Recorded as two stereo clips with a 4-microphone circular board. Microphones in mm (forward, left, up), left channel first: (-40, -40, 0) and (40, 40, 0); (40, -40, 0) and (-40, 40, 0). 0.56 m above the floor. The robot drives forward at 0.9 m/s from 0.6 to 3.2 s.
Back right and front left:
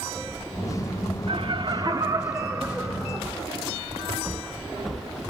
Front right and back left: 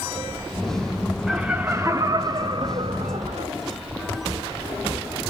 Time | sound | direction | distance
1.3 | laughter | 45° left | 1.2 m